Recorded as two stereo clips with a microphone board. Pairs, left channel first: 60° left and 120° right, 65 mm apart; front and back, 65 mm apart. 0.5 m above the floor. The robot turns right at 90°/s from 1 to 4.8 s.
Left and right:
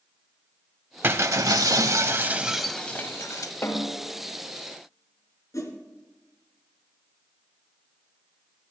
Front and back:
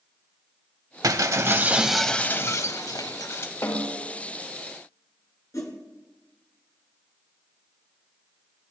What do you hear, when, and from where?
1.0 s breaking glass: 175° right, 0.7 m; by 3.5 s 50° left, 0.7 m
3.6 s a snare drum: 15° left, 2 m; by 4.0 s 55° left, 2 m
5.5 s a whoosh: 30° left, 2 m